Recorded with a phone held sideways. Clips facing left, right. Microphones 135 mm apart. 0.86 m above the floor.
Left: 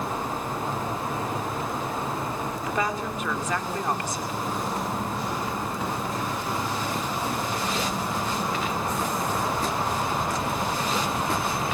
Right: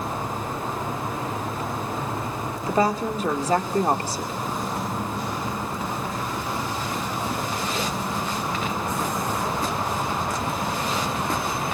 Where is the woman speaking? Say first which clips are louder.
Right 8 dB; 35° right (ahead or behind), 2.5 m.